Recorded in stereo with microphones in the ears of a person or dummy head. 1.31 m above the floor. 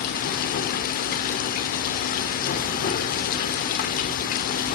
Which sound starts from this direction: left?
Running water, at 0.0 s.